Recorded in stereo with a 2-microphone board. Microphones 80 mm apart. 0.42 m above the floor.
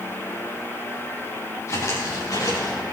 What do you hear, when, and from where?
1.7 s footsteps: 40° left (ahead or behind), 3.5 m; by 2.8 s 50° left (ahead or behind), 5 m